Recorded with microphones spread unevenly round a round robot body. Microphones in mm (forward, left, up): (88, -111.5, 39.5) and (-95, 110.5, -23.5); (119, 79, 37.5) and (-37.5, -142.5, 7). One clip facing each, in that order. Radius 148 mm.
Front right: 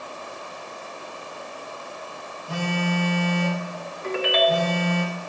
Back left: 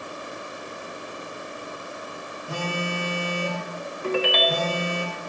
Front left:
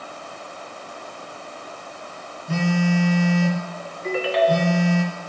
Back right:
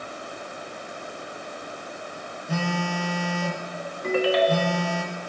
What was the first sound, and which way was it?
A phone buzzing, 40° left.